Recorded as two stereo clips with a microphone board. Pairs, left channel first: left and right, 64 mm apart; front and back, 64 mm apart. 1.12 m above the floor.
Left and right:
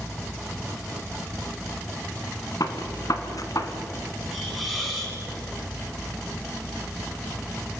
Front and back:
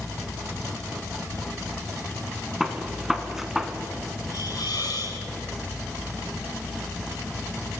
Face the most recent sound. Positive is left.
turn(degrees=5)